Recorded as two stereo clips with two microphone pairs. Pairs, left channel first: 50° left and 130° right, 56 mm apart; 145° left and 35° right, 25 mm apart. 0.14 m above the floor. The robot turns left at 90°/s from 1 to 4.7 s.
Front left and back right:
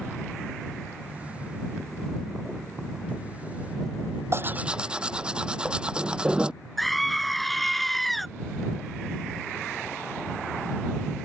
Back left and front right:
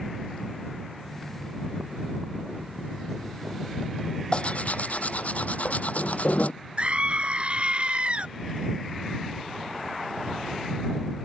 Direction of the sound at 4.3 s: 170° right.